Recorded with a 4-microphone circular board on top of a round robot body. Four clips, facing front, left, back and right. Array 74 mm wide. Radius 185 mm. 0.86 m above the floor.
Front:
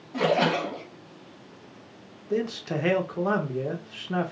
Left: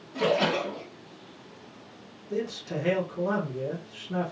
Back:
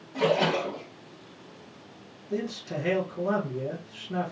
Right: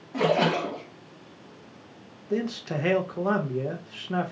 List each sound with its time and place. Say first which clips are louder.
0.1 s a splash: right 2 dB, front 1 dB; 60° right, 0.6 m
2.3 s a man speaking: right 3 dB, front 4 dB; 45° right, 1.1 m